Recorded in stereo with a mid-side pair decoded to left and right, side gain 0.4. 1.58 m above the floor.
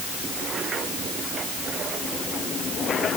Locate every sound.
Only background noise.